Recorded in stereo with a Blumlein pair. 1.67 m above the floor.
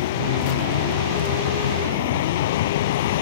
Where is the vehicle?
55° left.